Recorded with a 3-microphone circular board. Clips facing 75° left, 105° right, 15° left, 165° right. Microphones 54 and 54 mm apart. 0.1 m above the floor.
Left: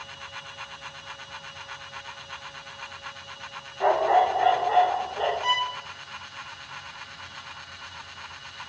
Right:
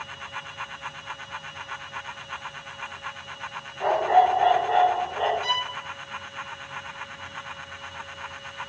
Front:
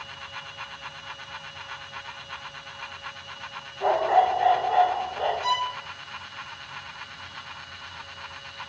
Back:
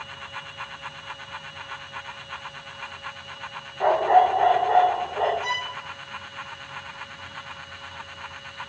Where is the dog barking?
155° left, 2 m; by 5.3 s straight behind, 3 m.